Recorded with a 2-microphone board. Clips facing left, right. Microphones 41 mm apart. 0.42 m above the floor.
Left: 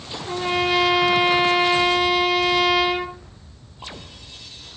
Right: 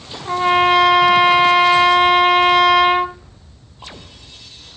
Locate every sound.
0.2 s a trumpet: 50° right (ahead or behind), 1.8 m